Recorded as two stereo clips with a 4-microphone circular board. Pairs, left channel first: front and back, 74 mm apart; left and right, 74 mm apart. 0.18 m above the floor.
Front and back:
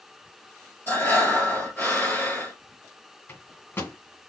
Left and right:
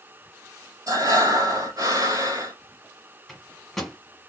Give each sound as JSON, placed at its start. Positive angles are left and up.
{"t": 0.9, "sound": "breathing", "azimuth_deg": -65, "distance_m": 1.9}
{"t": 3.3, "sound": "a microwave", "azimuth_deg": 10, "distance_m": 1.4}